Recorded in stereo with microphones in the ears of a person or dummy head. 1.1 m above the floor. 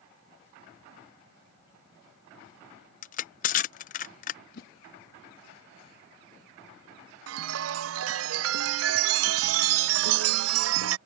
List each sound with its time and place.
3.0 s crushing: 40° left (ahead or behind)
4.5 s a whoosh: 40° left (ahead or behind)
7.3 s a chime: 70° right (ahead or behind)